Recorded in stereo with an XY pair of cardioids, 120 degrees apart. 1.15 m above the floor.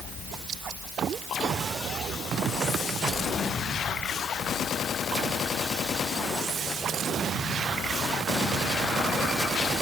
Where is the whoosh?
No whoosh in this recording.